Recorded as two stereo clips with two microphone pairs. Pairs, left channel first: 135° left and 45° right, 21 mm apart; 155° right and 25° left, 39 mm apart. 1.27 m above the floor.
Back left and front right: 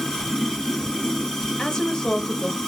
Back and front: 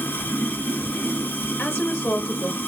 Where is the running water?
170° right, 4.5 m.